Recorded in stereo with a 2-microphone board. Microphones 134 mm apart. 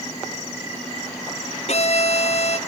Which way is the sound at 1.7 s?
55° left (ahead or behind).